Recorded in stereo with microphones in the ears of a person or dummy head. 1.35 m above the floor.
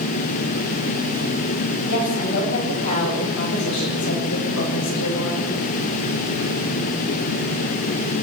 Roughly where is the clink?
No clink in this recording.